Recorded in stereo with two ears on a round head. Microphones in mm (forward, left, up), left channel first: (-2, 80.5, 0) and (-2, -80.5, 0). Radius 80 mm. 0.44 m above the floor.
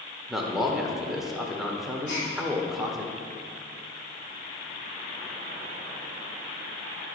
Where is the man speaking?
Centre (ahead or behind), 0.8 m.